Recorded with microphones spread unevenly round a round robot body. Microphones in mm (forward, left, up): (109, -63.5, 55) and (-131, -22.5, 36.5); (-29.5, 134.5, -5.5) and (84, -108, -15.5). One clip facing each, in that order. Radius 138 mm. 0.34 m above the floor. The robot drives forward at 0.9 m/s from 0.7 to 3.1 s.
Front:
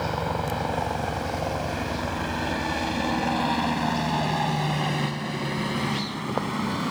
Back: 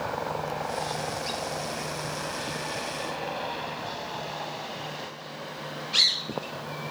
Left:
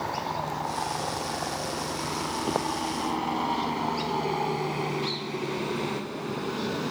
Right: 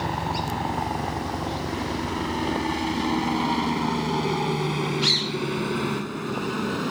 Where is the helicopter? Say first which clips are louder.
Front 4 dB, right 4 dB; 40° right; by 6.9 s straight ahead.